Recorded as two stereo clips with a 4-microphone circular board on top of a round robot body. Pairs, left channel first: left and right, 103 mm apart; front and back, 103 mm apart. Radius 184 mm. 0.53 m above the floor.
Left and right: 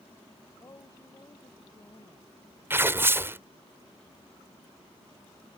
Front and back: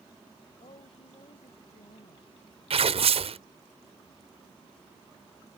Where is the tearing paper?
160° right.